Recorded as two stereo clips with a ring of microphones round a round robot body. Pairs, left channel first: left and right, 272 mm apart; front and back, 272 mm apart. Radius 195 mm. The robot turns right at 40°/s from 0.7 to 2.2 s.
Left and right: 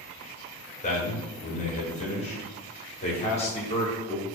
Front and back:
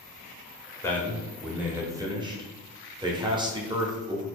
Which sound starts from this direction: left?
A man speaking, at 0.8 s.